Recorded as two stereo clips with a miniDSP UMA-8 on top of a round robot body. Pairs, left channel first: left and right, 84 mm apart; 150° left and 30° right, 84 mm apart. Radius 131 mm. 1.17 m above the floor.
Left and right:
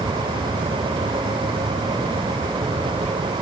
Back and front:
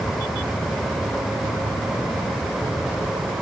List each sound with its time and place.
Only background noise.